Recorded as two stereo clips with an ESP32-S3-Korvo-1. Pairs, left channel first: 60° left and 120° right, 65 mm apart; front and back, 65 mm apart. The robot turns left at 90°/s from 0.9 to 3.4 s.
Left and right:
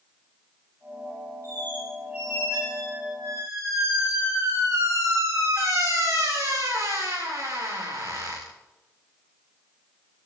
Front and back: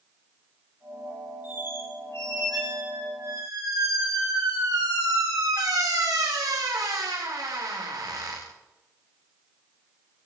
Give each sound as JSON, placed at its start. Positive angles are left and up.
{"t": 1.4, "sound": "a squeak", "azimuth_deg": 15, "distance_m": 8.5}